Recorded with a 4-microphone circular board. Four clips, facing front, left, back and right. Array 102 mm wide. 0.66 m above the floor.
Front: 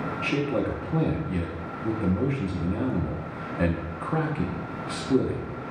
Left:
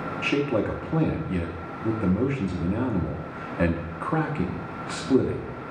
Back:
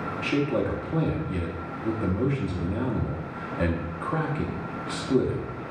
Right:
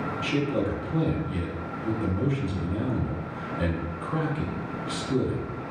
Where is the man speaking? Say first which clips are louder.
Left 3 dB, back 1 dB; 85° left, 0.7 m.